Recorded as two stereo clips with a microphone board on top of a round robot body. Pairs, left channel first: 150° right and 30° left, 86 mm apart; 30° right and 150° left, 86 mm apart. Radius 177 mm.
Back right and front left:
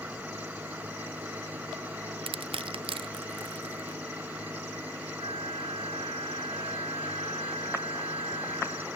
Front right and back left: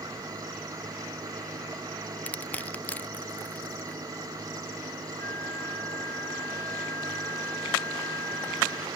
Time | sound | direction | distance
0.0 | an engine running | 100° left | ?
2.3 | crushing | 45° left | ?
5.2 | a flute | 35° left | ?